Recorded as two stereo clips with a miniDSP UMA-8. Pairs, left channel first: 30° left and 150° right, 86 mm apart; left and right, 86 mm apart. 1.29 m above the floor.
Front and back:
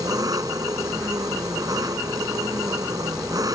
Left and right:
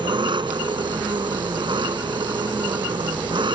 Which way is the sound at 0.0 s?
105° right.